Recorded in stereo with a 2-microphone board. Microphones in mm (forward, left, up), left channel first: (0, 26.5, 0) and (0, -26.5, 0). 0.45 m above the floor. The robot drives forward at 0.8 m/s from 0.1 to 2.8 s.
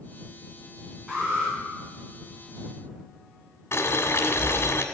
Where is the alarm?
Centre (ahead or behind), 5.5 m.